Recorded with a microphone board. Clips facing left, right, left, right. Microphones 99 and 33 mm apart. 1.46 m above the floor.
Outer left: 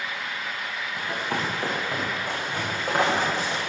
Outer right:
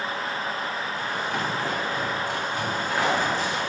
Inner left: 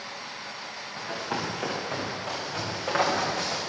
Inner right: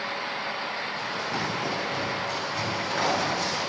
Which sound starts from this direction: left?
Running footsteps, at 1.0 s.